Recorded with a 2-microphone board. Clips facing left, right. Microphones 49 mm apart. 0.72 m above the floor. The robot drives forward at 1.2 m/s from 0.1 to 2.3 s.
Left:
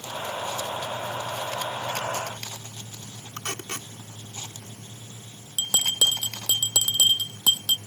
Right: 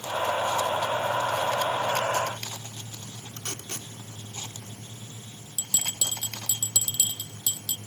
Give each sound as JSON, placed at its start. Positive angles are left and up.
{"t": 3.4, "sound": "tape being pulled", "side_deg": 60}
{"t": 5.6, "sound": "a bell", "side_deg": 75}